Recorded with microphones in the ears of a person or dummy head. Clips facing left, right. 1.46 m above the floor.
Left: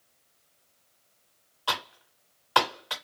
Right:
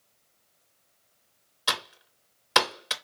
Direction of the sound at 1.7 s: 30° right (ahead or behind).